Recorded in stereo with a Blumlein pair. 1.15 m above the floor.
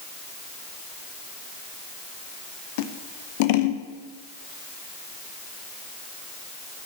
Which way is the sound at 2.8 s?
50° left.